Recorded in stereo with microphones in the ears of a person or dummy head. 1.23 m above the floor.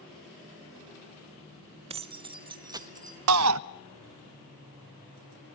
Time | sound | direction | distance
1.9 | keys jangling | 25° right (ahead or behind) | 0.6 m
3.3 | a shout | 75° right (ahead or behind) | 0.9 m